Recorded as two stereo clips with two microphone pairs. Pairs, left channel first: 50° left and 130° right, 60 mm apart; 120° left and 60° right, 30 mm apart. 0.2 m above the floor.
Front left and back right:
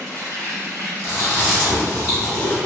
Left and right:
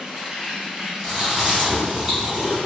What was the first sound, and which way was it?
An insect, 110° right.